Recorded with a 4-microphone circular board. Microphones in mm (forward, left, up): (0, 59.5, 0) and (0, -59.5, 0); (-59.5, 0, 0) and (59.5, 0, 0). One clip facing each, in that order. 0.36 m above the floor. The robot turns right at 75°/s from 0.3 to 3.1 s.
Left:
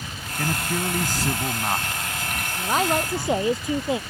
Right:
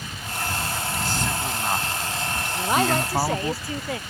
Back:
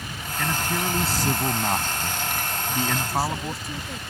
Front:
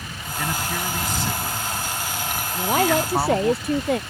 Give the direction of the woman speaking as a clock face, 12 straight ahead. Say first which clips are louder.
Right 1 dB, front 10 dB; 1 o'clock.